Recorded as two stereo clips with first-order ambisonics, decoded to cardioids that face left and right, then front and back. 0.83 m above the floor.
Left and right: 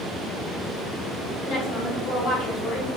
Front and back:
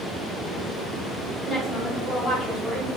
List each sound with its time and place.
1.4 s a woman speaking: 70° left, 2.5 m